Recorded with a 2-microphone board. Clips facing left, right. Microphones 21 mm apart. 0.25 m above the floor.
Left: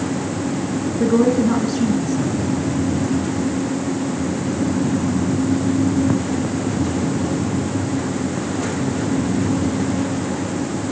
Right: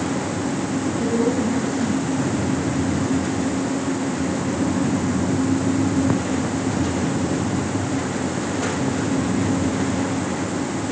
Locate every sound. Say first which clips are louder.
1.0 s a woman speaking: left 7 dB; 55° left (ahead or behind), 3.5 m